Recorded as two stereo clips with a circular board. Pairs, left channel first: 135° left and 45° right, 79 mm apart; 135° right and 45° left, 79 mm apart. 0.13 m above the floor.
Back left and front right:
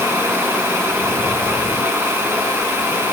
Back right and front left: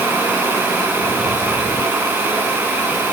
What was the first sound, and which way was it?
Only background noise.